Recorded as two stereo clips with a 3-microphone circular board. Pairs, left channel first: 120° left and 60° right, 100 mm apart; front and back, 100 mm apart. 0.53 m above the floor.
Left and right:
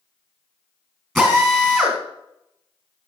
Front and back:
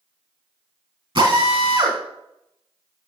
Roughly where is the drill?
Behind right.